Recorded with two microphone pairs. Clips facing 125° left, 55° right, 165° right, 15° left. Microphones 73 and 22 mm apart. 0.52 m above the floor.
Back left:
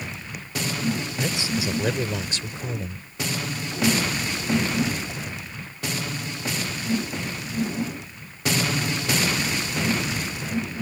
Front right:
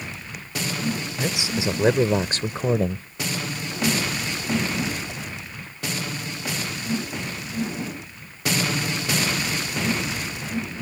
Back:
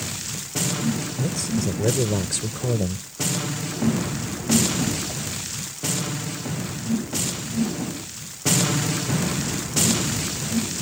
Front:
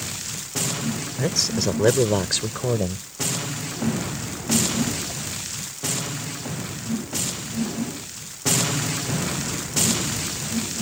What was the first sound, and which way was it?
A man speaking, 20° left.